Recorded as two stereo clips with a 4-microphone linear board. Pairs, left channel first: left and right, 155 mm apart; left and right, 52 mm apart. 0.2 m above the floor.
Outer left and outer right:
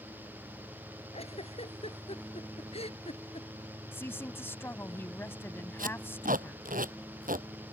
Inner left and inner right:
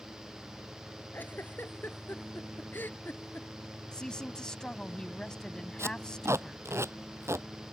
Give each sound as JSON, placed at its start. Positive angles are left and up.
{"t": 1.1, "sound": "a giggle", "side_deg": 40}
{"t": 3.9, "sound": "a woman speaking", "side_deg": 15}
{"t": 5.8, "sound": "tape being pulled", "side_deg": -65}